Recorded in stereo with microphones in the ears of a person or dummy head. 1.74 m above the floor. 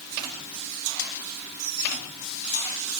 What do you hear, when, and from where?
Only background noise.